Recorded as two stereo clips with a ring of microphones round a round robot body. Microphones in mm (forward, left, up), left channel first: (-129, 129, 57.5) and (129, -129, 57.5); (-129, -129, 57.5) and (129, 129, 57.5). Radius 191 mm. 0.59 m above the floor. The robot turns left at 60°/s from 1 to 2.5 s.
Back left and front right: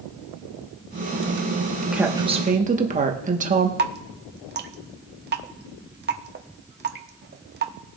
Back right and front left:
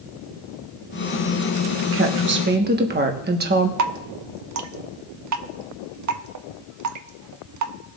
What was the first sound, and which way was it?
A woman speaking, 40° left.